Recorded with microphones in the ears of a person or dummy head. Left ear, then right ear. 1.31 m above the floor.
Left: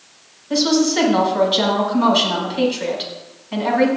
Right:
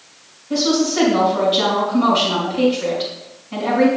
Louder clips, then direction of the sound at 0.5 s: Left 1 dB; 60° left (ahead or behind).